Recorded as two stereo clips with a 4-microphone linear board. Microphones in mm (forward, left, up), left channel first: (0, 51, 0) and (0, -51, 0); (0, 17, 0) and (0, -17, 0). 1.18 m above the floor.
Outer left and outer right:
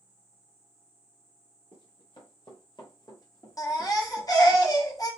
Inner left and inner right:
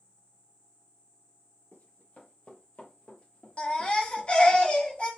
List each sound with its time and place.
1.7 s running footsteps: 55° left (ahead or behind), 1.9 m; by 4.6 s 5° left (ahead or behind), 1.6 m
3.6 s a baby crying: 35° left (ahead or behind), 1.0 m